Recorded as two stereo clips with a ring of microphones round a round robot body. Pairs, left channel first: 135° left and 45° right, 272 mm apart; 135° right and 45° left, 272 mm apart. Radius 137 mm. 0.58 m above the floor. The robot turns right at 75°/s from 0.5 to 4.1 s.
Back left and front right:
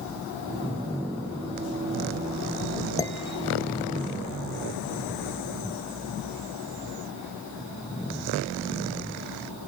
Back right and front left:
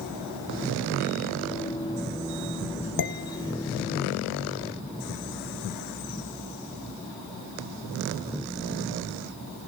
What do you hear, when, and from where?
3.0 s dishes clattering: 150° right, 1.8 m; by 3.9 s 85° right, 1.8 m